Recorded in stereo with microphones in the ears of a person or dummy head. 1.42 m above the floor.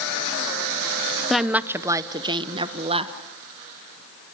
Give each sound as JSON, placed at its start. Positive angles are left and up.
{"t": 1.3, "sound": "a woman speaking", "side_deg": -5, "distance_m": 0.6}